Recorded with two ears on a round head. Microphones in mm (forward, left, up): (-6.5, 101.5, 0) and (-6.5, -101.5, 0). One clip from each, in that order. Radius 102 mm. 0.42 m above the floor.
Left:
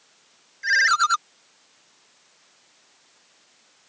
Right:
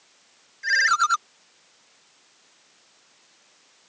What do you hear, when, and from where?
0.6 s a ringtone: 5° left (ahead or behind)